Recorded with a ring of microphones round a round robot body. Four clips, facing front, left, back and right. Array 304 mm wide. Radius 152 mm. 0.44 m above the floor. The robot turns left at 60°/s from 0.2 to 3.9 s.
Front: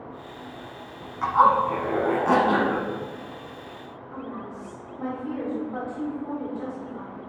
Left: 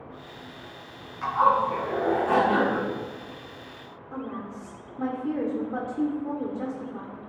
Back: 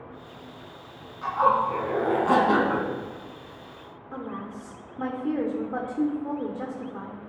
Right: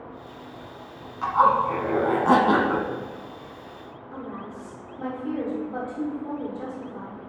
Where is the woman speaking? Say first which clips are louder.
Left 2 dB, back 1 dB; 155° left, 1.5 m.